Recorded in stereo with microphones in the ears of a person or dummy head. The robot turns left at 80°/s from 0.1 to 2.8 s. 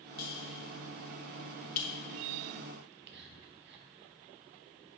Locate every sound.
0.2 s a clink: 20° right (ahead or behind), 1.1 m; by 1.9 s 50° left (ahead or behind), 1.1 m
2.8 s whispering: 65° right (ahead or behind), 1.2 m